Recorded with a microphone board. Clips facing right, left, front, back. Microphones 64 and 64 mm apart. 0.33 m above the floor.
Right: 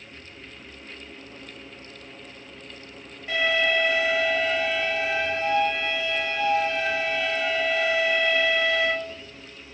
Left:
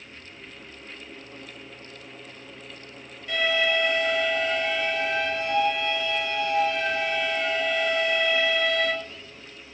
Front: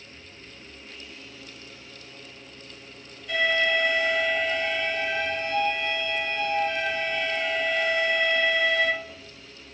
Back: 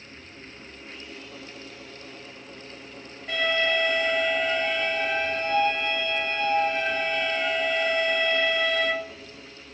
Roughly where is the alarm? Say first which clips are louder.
Right 1 dB, front 1 dB; behind right.